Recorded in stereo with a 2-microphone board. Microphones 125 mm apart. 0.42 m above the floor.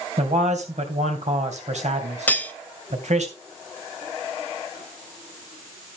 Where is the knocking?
I don't hear knocking.